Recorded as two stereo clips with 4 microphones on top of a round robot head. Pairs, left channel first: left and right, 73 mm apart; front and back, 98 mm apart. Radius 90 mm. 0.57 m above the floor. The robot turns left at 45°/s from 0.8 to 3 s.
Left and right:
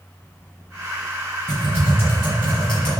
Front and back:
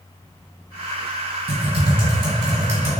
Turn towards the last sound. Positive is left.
turn(degrees=110)